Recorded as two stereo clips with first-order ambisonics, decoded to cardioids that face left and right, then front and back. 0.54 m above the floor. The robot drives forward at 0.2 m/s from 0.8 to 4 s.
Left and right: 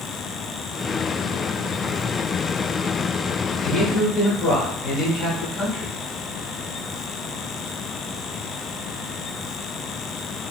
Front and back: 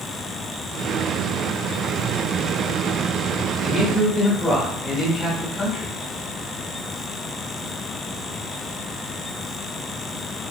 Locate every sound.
3.6 s a man speaking: 80° left, 1.3 m; by 5.9 s 85° left, 1.3 m